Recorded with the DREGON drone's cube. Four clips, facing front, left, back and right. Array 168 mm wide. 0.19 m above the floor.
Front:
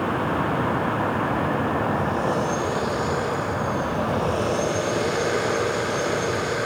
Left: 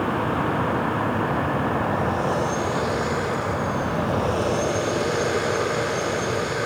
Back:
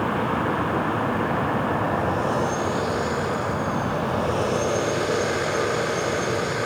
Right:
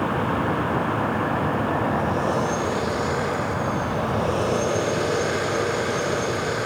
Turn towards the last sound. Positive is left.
No sound to turn to.